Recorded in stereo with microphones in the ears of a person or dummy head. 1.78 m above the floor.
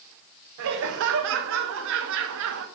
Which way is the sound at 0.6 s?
70° right (ahead or behind).